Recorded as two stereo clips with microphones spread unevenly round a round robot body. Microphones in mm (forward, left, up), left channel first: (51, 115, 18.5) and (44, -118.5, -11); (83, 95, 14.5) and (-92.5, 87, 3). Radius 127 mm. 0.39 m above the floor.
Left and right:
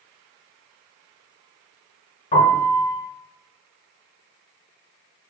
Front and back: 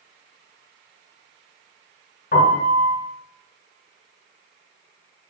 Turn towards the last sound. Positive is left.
turn(degrees=30)